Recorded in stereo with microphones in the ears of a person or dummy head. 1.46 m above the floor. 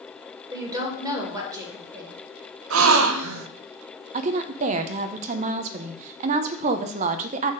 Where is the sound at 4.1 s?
40° right (ahead or behind), 0.5 m.